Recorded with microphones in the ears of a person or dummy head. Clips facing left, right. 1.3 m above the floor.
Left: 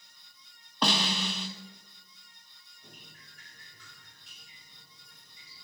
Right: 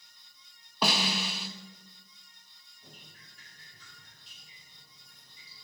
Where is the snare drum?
10° right (ahead or behind), 1.1 m.